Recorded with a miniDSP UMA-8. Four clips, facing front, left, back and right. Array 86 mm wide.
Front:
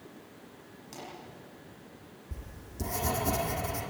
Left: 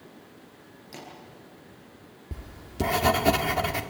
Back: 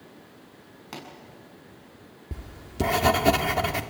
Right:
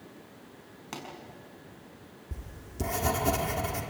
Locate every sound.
0.9 s a pop: 135° right, 6 m
2.3 s writing: 150° left, 1.7 m